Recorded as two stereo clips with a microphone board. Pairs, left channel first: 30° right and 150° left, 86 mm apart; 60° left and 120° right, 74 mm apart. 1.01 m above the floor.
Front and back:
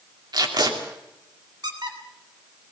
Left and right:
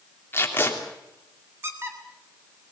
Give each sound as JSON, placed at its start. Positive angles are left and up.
{"t": 0.3, "sound": "tape being pulled", "azimuth_deg": 120, "distance_m": 3.0}
{"t": 1.6, "sound": "a squeak", "azimuth_deg": 180, "distance_m": 3.0}